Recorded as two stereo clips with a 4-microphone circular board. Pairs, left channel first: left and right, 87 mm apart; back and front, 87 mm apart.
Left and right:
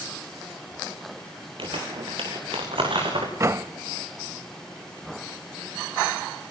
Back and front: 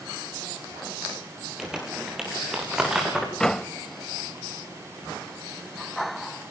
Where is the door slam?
100° right, 0.7 m.